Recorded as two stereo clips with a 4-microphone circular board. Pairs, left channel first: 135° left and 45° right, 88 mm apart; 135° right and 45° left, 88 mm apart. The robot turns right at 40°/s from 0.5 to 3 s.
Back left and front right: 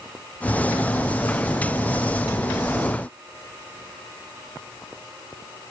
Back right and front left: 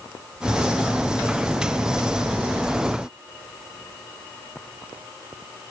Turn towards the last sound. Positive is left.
No sound to turn to.